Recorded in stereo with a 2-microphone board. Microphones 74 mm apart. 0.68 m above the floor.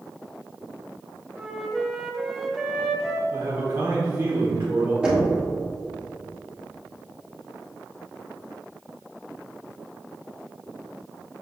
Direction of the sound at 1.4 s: 5° right (ahead or behind).